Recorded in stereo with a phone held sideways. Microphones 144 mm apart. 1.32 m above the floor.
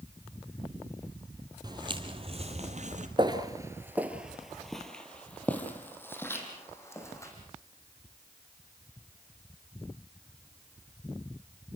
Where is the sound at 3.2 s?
30° right (ahead or behind), 1.5 m; by 7.3 s 20° left (ahead or behind), 4.5 m.